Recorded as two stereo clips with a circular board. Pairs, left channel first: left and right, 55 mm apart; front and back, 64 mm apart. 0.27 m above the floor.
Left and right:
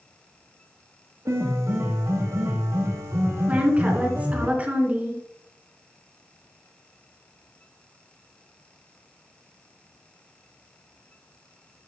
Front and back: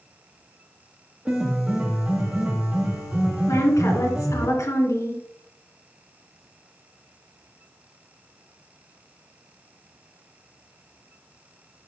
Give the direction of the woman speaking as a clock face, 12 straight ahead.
1 o'clock.